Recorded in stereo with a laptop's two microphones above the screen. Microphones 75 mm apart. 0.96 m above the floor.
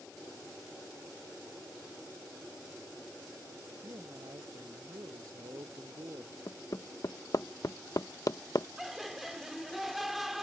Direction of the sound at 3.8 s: 60° right (ahead or behind).